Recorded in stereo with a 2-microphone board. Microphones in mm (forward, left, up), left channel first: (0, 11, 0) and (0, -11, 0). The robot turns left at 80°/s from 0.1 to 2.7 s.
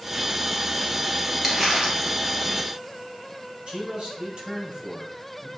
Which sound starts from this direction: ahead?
Crumpling, at 1.4 s.